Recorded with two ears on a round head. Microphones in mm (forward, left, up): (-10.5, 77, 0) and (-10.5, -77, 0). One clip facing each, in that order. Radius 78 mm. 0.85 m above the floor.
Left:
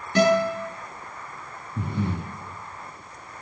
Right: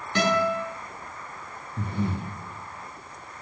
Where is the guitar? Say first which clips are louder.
Left 4 dB; 35° left (ahead or behind), 7 m.